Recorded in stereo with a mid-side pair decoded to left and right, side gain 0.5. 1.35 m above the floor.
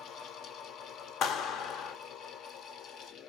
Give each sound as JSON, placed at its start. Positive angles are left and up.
{"t": 0.0, "sound": "a fan", "azimuth_deg": 65, "distance_m": 0.7}
{"t": 1.2, "sound": "a clap", "azimuth_deg": 70, "distance_m": 0.7}